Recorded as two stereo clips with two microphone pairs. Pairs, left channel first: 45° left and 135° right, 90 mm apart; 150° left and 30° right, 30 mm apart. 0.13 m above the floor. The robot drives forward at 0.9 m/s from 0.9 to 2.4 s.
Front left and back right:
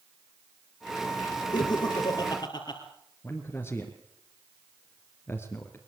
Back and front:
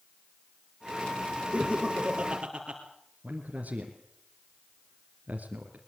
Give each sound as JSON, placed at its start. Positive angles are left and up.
{"t": 1.5, "sound": "laughter", "azimuth_deg": 20, "distance_m": 4.0}
{"t": 3.2, "sound": "a man speaking", "azimuth_deg": -15, "distance_m": 2.5}